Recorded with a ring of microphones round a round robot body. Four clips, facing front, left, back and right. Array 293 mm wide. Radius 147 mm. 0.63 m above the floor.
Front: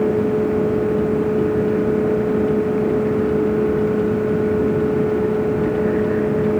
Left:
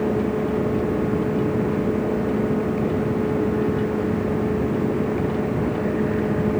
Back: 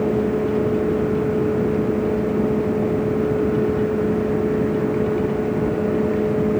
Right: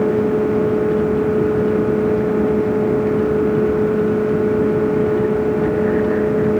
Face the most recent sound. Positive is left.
No sound to turn to.